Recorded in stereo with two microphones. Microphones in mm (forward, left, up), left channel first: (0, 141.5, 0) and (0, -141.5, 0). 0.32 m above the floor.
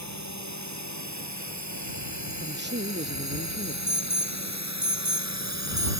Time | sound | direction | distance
0.0 | a drone | 80° right | ?
2.4 | a man speaking | 40° right (ahead or behind) | ?
3.9 | an alarm | 80° right | ?